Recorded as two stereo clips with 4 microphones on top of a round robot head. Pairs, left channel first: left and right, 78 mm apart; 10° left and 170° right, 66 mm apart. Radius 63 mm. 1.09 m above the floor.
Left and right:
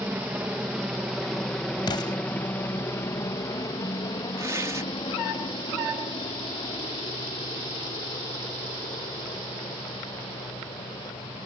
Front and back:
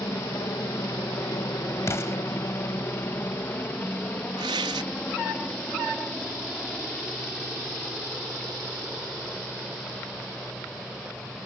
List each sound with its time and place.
0.0 s a helicopter: 30° right; by 11.4 s 95° left
1.9 s an explosion: 60° left
4.4 s tearing paper: 155° right